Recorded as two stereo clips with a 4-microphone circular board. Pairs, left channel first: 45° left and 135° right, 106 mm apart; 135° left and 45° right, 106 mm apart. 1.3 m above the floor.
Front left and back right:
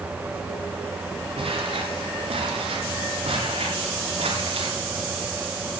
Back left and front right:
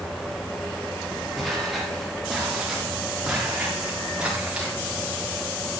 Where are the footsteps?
135° right, 8.5 m; by 4.8 s 125° right, 10.5 m.